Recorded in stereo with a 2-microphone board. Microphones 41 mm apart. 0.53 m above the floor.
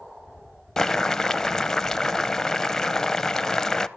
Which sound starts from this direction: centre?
Boiling, at 0.8 s.